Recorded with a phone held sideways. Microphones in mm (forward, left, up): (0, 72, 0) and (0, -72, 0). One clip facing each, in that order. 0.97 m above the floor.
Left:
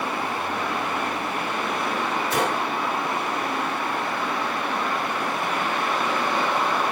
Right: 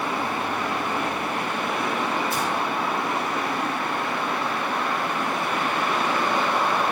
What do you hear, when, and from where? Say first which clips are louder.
2.3 s a gunshot: left 2 dB; 85° left, 3 m